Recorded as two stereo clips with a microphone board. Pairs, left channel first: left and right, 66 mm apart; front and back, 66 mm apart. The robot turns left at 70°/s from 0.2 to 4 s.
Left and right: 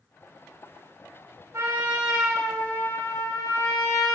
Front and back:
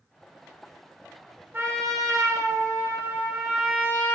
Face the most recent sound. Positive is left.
turn(degrees=60)